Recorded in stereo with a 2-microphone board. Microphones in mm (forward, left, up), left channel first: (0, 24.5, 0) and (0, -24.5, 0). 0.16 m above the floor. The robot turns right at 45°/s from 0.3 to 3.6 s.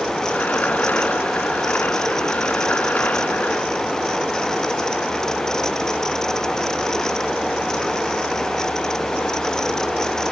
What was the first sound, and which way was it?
Only background noise.